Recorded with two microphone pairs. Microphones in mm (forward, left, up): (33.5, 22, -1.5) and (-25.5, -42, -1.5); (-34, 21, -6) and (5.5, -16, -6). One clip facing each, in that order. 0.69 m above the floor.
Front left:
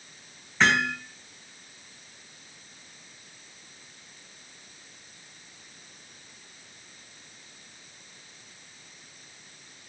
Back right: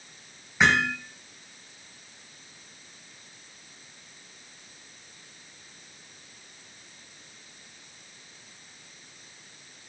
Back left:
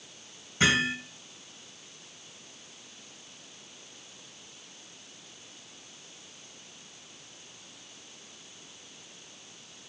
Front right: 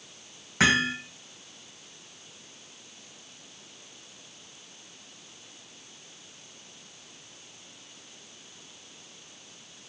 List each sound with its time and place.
0.6 s hammering: 55° right, 3.5 m